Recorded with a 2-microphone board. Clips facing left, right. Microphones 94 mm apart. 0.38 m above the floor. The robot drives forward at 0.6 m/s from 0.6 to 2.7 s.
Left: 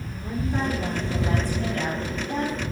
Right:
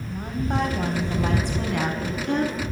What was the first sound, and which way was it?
A woman speaking, 70° right (ahead or behind).